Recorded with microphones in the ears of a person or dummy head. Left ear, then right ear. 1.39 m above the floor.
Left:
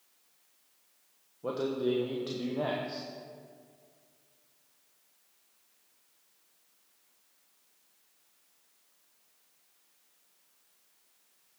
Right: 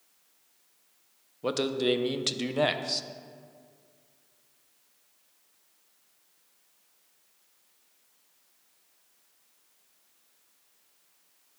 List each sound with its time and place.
1.4 s a man speaking: 70° right (ahead or behind), 0.7 m